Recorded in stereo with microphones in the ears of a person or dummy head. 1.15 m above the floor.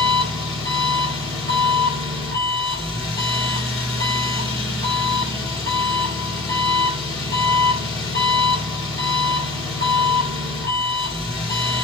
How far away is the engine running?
About 2 m.